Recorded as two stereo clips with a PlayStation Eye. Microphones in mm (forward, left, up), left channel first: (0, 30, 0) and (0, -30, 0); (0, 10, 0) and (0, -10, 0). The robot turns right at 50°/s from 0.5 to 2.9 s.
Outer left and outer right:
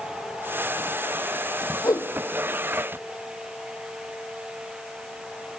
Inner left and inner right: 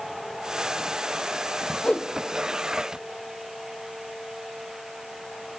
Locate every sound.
1.8 s a whoosh: 80° left, 0.9 m; by 2.1 s 85° left, 0.9 m